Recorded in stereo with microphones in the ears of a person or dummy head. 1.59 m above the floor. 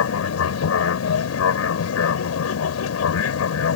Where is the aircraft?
80° left.